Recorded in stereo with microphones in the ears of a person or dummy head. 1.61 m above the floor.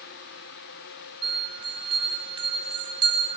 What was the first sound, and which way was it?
A bell, 25° right (ahead or behind).